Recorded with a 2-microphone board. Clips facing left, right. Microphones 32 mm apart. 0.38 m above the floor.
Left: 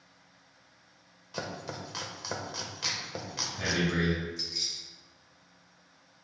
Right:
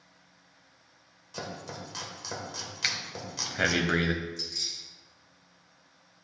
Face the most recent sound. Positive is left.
turn(degrees=15)  # may be behind; listen again after turning